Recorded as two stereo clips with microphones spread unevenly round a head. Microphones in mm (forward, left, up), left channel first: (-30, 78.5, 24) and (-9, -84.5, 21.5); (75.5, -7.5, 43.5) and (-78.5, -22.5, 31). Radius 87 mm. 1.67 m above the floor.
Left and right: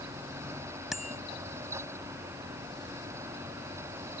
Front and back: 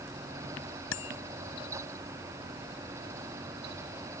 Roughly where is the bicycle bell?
Ahead.